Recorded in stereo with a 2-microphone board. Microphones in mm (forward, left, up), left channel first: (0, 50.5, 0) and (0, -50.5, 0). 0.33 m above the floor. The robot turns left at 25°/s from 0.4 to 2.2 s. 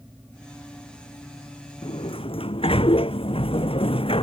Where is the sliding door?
55° left (ahead or behind); by 4.2 s 65° left (ahead or behind).